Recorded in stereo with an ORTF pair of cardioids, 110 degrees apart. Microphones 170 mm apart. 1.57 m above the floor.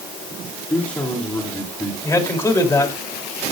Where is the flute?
I don't hear a flute.